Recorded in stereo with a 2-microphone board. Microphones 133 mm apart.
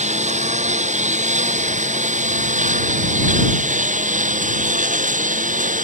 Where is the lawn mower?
60° right (ahead or behind); by 5.8 s 75° right (ahead or behind).